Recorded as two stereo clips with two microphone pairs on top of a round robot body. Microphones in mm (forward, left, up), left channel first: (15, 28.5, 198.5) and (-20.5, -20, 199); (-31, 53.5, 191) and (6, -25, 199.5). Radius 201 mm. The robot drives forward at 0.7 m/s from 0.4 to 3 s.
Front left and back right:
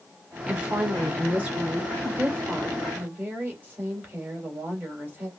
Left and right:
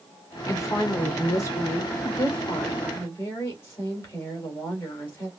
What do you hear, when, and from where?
0.5 s a woman speaking: 160° left, 1.5 m; by 5.3 s 170° left, 3 m